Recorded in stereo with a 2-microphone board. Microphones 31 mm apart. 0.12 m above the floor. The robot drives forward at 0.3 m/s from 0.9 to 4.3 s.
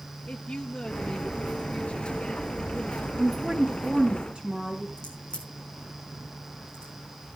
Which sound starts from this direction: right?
A woman speaking, at 3.2 s.